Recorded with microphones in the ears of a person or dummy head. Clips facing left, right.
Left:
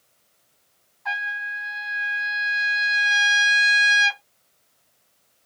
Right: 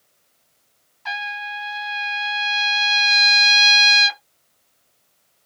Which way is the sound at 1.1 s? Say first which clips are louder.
Right 3 dB; 35° right (ahead or behind).